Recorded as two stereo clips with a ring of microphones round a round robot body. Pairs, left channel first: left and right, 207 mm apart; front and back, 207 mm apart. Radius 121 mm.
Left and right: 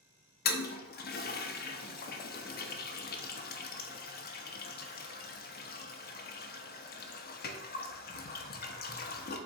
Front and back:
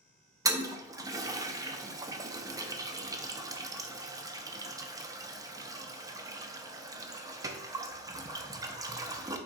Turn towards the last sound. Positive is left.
turn(degrees=110)